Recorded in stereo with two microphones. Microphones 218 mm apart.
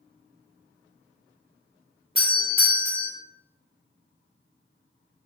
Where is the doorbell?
25° right (ahead or behind), 1.4 m.